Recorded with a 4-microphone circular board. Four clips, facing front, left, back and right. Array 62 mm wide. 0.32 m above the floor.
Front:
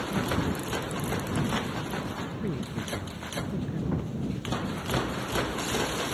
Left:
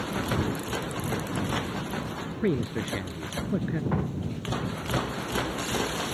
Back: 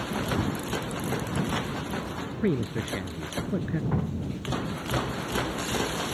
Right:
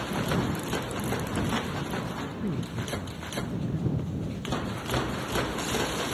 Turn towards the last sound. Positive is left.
turn(degrees=110)